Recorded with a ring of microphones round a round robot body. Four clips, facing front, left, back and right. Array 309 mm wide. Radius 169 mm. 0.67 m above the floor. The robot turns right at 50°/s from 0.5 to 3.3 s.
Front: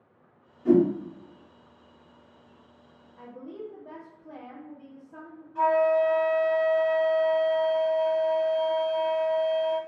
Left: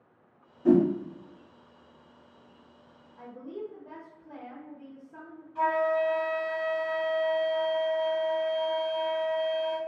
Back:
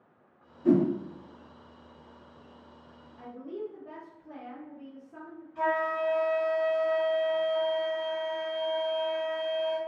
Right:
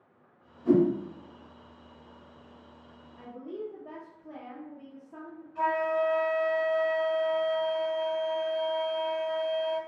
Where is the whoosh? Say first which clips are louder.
Left 1 dB, front 3 dB; 105° left, 0.9 m; by 0.9 s 115° left, 0.9 m.